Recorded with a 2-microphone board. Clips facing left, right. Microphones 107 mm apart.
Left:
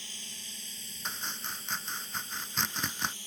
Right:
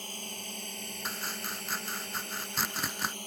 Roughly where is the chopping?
Centre.